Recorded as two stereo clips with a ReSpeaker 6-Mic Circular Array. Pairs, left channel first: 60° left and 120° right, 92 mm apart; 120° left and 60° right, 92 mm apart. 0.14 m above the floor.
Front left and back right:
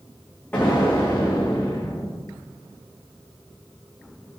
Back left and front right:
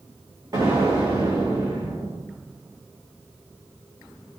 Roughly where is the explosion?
Ahead.